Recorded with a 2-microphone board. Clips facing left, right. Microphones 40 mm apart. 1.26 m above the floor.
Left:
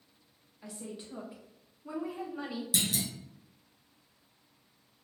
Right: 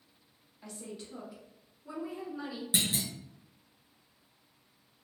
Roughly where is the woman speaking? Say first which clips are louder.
Left 1 dB; centre.